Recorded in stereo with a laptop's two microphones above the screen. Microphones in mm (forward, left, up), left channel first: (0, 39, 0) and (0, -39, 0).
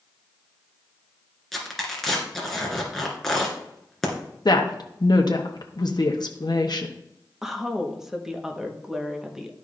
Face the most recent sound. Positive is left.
turn(degrees=-5)  # may be behind; listen again after turning